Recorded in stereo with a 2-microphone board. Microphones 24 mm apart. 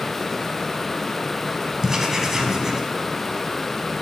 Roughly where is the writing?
Centre.